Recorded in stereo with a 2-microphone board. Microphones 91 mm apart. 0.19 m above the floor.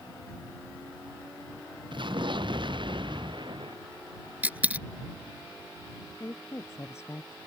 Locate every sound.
1.9 s an explosion: 65° right (ahead or behind)
4.4 s a dropped coin: 15° right (ahead or behind)
6.2 s a woman speaking: 30° left (ahead or behind)